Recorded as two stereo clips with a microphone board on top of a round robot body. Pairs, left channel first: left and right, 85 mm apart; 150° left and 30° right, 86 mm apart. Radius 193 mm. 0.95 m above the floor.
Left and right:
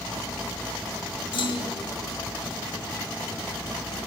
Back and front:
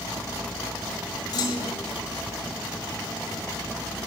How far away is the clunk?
About 1.4 m.